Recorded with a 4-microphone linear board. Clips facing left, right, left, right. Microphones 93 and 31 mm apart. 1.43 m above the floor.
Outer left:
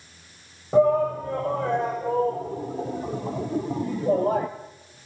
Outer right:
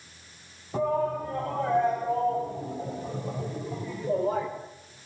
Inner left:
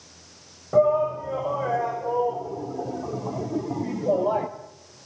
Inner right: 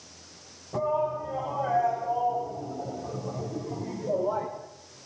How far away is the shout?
About 7.5 m.